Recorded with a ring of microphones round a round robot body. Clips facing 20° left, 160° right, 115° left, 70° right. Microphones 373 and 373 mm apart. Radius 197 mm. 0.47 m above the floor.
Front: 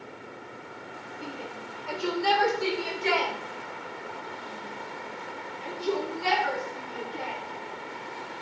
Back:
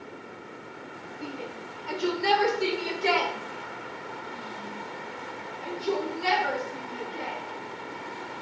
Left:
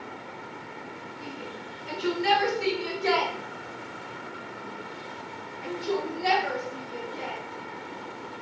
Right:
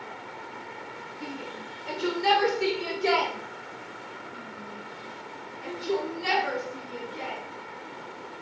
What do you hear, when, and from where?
1.2 s a shout: 80° right, 2 m; by 7.4 s 145° right, 5.5 m